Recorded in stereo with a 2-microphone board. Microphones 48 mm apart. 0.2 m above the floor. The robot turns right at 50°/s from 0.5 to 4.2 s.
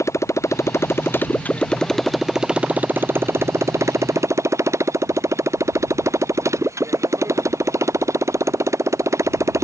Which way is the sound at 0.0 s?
75° left (ahead or behind).